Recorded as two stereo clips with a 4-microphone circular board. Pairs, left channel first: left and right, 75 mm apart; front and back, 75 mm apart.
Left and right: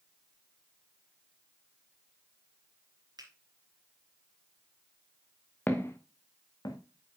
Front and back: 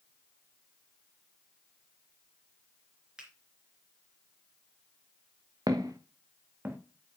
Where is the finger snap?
105° right, 3 m.